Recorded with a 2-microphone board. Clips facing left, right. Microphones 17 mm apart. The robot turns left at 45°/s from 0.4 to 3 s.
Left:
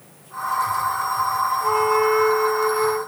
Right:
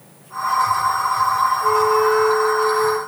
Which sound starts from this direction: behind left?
A flute, at 1.6 s.